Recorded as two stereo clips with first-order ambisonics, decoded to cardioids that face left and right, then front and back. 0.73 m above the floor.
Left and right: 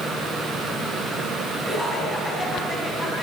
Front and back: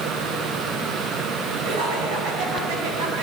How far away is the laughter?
About 7 m.